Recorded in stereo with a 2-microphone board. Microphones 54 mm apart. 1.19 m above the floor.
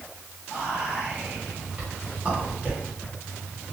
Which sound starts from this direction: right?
Whispering, at 0.5 s.